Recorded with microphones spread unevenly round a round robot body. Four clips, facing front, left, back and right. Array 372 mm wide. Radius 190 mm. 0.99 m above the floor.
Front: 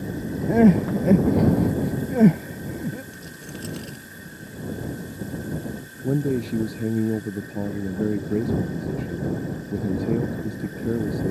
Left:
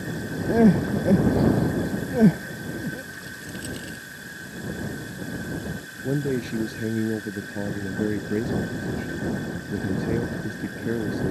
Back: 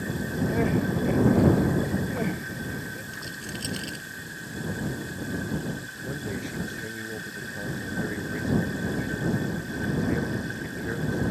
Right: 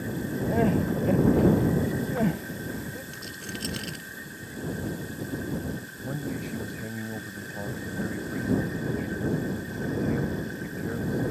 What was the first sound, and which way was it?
Crying, 30° left.